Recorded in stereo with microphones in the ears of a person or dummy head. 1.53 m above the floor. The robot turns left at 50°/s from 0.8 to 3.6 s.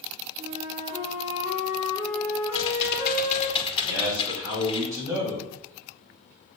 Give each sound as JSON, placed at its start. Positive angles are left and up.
{"t": 0.4, "sound": "a flute", "azimuth_deg": -110, "distance_m": 3.5}
{"t": 2.5, "sound": "typing on a keyboard", "azimuth_deg": 80, "distance_m": 1.8}
{"t": 3.9, "sound": "a man speaking", "side_deg": -15, "distance_m": 5.0}